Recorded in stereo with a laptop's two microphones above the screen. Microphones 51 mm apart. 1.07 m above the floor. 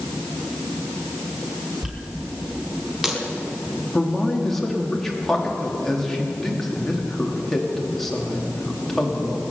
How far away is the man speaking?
About 2.5 m.